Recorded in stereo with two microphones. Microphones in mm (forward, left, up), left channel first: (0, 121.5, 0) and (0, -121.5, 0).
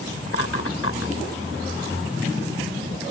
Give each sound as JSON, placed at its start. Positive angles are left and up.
{"t": 0.3, "sound": "laughter", "side_deg": 75}